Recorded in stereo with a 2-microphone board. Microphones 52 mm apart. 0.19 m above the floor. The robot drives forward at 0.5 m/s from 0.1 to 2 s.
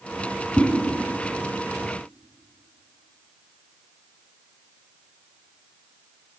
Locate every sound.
0.6 s a whoosh: 30° left (ahead or behind), 0.8 m